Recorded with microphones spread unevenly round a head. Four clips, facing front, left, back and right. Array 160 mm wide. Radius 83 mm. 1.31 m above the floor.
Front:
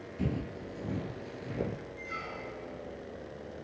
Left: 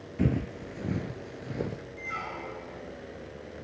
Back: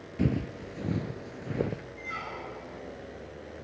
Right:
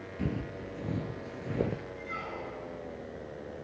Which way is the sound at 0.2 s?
135° left.